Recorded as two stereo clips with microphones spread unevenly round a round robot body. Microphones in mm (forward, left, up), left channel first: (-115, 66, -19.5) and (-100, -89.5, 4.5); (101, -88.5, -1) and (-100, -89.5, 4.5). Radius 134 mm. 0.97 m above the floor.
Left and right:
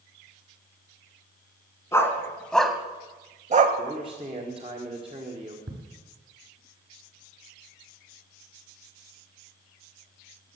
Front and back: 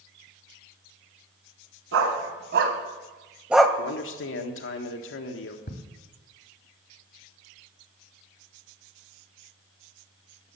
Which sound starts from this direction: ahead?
A man speaking, at 3.8 s.